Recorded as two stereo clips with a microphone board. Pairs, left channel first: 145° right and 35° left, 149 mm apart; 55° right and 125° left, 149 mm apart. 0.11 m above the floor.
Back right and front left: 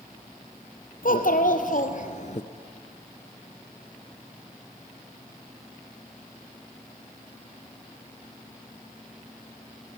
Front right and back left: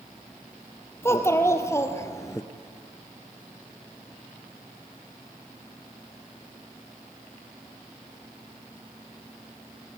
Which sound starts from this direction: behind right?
A child speaking, at 1.0 s.